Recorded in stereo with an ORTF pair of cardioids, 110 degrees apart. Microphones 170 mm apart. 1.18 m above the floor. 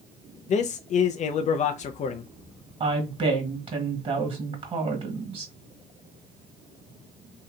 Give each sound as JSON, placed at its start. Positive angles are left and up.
{"t": 0.5, "sound": "a man speaking", "azimuth_deg": 45, "distance_m": 0.5}
{"t": 2.8, "sound": "a woman speaking", "azimuth_deg": -30, "distance_m": 1.7}